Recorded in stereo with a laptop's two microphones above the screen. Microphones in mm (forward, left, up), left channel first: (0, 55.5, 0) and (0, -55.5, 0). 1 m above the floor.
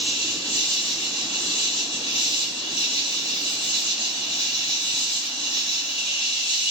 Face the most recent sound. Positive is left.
turn(degrees=10)  # may be behind; listen again after turning